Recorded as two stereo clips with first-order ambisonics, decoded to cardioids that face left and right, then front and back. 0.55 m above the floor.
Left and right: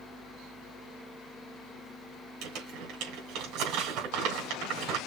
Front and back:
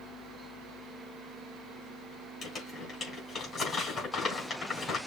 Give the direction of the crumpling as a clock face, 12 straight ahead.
2 o'clock.